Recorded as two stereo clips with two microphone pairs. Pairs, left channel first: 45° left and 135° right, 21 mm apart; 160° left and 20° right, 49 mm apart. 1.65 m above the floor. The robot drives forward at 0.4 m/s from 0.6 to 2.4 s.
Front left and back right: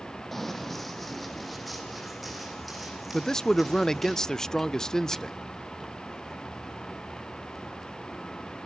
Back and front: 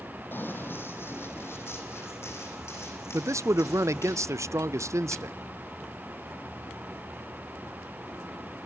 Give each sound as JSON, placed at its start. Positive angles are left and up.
{"t": 0.3, "sound": "running footsteps", "azimuth_deg": 125, "distance_m": 3.0}
{"t": 3.1, "sound": "a man speaking", "azimuth_deg": -15, "distance_m": 0.5}